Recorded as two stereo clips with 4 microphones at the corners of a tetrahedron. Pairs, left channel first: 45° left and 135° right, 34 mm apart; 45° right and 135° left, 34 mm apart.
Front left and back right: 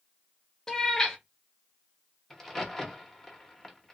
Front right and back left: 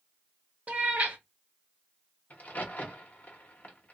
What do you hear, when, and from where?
0.7 s a cat meowing: 115° left, 0.7 m
2.3 s a crack: 25° right, 0.8 m